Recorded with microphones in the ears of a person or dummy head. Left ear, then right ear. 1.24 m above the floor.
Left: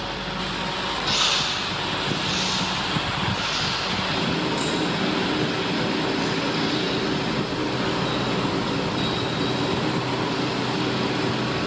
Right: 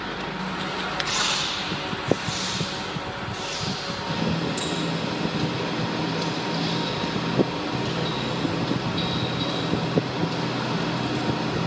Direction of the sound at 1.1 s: 65° right (ahead or behind).